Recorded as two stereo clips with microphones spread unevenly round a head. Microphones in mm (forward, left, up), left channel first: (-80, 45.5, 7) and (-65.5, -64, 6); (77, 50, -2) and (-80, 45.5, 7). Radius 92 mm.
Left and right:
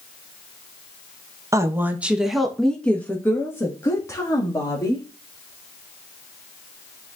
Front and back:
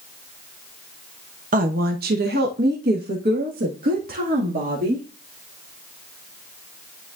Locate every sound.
1.5 s a woman speaking: 140° right, 0.9 m; by 5.1 s 155° left, 2 m